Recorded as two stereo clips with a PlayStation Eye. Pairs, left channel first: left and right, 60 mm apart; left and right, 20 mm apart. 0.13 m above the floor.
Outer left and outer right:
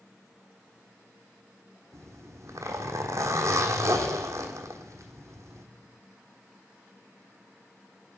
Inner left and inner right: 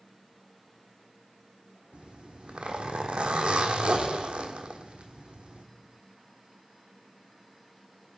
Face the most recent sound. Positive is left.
turn(degrees=-60)  # may be behind; listen again after turning